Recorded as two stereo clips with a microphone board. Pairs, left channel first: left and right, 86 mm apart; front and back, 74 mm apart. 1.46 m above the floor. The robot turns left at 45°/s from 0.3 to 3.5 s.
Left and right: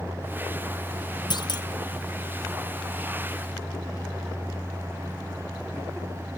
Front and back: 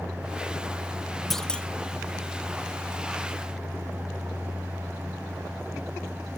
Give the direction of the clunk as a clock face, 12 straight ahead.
9 o'clock.